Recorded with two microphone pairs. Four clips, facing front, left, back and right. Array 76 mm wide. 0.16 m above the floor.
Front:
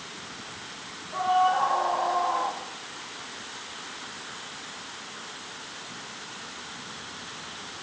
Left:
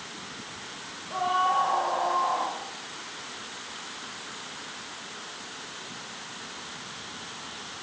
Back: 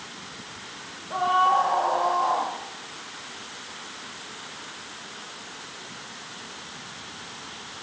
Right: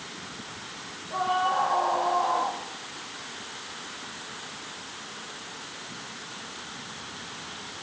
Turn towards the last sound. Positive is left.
turn(degrees=-170)